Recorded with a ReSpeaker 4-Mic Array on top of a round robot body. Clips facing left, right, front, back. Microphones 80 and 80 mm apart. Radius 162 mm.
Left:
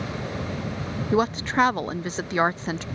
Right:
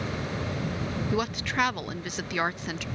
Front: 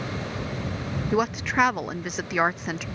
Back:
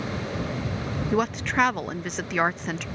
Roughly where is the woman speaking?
Left.